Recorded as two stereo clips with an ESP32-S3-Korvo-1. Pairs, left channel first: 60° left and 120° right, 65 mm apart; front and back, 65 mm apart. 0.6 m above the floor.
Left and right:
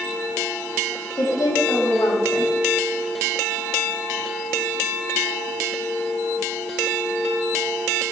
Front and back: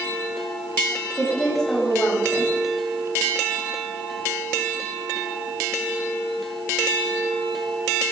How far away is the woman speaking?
About 4 m.